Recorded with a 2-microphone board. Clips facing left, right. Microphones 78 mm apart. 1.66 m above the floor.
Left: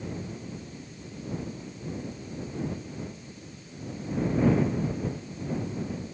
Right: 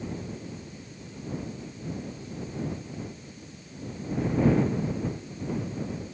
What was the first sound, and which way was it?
Only background noise.